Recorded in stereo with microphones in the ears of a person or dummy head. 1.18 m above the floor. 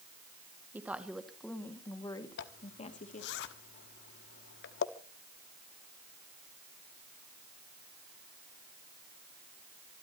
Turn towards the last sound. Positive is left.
turn(degrees=70)  # may be behind; listen again after turning